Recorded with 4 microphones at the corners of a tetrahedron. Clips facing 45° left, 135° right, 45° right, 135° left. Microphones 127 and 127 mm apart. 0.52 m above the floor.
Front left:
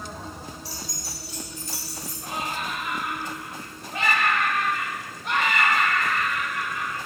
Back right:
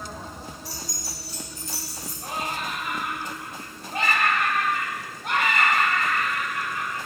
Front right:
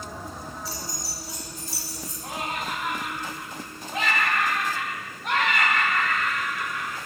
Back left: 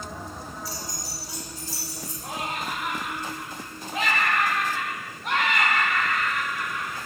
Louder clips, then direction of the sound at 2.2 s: Even, even; 135° right.